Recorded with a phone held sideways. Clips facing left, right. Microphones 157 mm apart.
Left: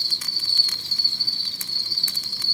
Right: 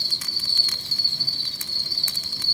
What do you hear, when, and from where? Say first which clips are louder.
0.0 s an insect: right 2 dB; 55° right (ahead or behind), 0.9 m